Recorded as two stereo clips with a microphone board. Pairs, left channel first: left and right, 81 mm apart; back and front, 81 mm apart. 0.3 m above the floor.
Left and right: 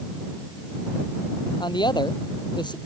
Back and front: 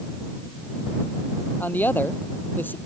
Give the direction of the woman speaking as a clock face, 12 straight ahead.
8 o'clock.